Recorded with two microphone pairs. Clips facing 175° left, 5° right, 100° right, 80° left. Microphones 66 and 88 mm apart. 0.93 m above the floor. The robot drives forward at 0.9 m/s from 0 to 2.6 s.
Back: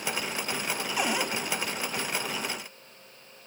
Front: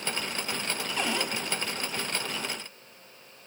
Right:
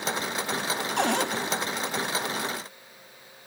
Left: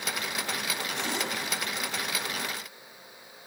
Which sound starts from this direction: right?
A cupboard door, at 1.0 s.